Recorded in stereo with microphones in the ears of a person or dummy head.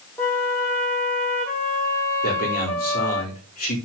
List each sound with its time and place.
0.2 s a flute: 10° left (ahead or behind), 2.5 m
2.2 s a man speaking: 45° left (ahead or behind), 3 m